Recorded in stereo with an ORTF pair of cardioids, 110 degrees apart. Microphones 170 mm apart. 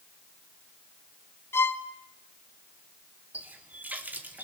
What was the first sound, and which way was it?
A violin, 15° left.